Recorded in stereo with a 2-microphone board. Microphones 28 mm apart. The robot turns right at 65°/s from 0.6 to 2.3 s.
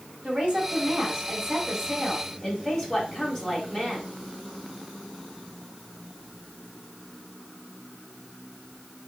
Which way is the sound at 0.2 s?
85° right.